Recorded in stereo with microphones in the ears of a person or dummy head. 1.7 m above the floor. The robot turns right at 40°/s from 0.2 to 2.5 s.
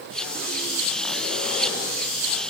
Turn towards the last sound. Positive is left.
No sound to turn to.